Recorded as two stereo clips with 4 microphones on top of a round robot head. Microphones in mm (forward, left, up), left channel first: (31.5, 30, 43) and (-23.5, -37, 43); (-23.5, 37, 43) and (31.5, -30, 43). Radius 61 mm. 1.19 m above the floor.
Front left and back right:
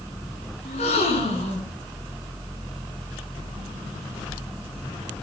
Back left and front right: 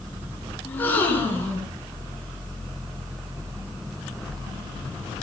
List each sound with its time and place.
0.7 s a gasp: 60° left, 4 m